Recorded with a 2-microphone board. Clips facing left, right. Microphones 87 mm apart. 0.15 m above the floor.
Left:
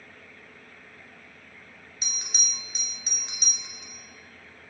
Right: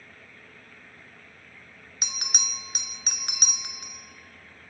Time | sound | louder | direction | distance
2.0 | a bell | right 4 dB | 60° right (ahead or behind) | 0.7 m